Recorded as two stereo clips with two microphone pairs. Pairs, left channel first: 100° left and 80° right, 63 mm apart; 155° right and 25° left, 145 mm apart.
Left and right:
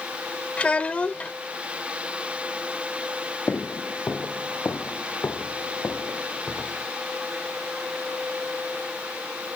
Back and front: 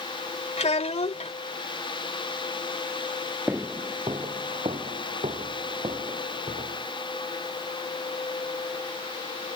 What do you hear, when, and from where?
0.6 s a child speaking: 165° left
3.5 s footsteps: 90° left; by 6.9 s 50° left